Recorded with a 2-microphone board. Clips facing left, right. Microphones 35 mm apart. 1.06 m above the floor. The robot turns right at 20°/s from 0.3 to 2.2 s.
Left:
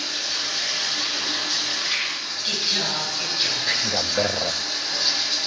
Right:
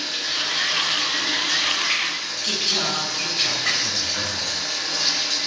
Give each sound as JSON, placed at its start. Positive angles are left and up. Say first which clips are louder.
{"t": 0.0, "sound": "running water", "louder": "right 2 dB", "azimuth_deg": -150, "distance_m": 9.5}
{"t": 2.4, "sound": "singing", "louder": "right 1 dB", "side_deg": -80, "distance_m": 7.0}
{"t": 3.8, "sound": "a man speaking", "louder": "left 3 dB", "side_deg": 60, "distance_m": 0.5}